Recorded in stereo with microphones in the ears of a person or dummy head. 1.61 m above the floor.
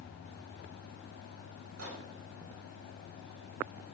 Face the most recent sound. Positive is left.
turn(degrees=-80)